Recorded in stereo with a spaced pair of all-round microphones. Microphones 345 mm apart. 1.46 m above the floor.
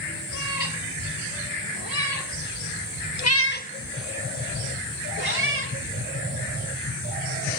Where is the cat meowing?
65° left (ahead or behind), 5 m; by 5.8 s 40° right (ahead or behind), 3.5 m.